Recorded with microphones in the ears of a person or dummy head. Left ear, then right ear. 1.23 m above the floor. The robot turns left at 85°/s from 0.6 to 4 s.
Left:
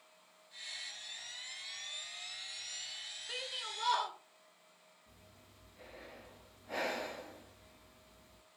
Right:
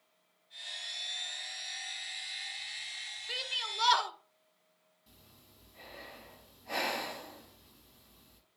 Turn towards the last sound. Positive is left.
turn(degrees=-50)  # may be behind; listen again after turning